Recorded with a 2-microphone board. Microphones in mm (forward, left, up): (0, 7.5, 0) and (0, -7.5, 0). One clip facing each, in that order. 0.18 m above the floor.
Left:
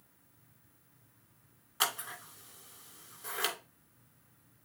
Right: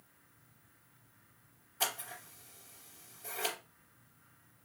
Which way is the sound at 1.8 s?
55° left (ahead or behind).